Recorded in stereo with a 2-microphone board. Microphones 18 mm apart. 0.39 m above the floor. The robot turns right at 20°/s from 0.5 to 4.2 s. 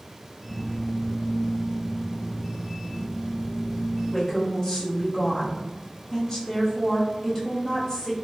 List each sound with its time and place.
4.1 s a woman speaking: 30° left (ahead or behind), 1.0 m